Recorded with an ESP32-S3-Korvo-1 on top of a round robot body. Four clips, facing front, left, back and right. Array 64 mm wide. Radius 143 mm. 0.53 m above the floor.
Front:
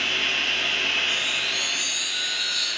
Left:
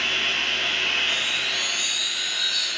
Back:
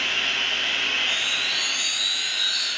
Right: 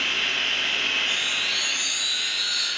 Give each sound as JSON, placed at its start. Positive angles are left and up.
{"t": 0.0, "sound": "running water", "azimuth_deg": 20, "distance_m": 1.6}
{"t": 1.1, "sound": "a chime", "azimuth_deg": -45, "distance_m": 3.5}